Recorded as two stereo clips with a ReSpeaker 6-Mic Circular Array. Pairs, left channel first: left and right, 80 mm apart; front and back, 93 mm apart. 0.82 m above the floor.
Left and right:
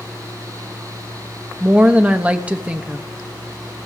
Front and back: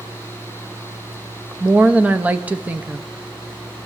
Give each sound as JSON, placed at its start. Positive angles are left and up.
{"t": 1.6, "sound": "a woman speaking", "azimuth_deg": -135, "distance_m": 0.6}